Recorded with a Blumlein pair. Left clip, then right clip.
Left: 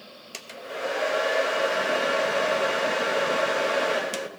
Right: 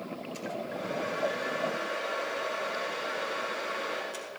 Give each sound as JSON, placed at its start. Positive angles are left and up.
{"t": 0.3, "sound": "a hair dryer", "azimuth_deg": 50, "distance_m": 0.9}